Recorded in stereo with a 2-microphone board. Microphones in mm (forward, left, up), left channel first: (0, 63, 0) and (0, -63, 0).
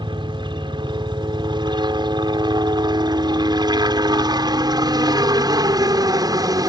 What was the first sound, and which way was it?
A helicopter, 40° right (ahead or behind).